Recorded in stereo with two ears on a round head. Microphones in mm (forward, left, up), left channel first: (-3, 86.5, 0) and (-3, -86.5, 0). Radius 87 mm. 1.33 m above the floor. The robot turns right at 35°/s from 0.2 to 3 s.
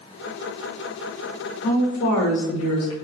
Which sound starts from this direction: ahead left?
A woman speaking, at 1.6 s.